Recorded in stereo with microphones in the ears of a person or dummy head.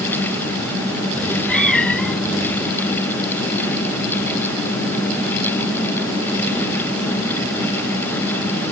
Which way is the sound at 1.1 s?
10° left (ahead or behind).